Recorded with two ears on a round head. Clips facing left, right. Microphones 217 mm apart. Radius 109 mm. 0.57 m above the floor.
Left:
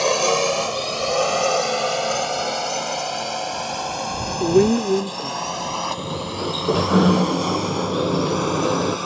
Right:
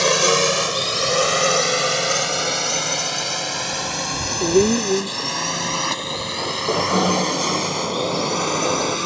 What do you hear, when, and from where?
0.0 s a drone: 25° right (ahead or behind); by 9.1 s 35° right (ahead or behind)
4.4 s a woman speaking: 5° left (ahead or behind)
6.0 s a sliding door: 25° left (ahead or behind)